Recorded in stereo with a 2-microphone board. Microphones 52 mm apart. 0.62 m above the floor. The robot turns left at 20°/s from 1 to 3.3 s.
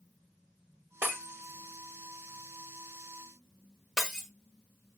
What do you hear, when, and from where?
1.0 s breaking glass: 45° right (ahead or behind), 1.1 m; by 4.3 s 5° right (ahead or behind), 1.1 m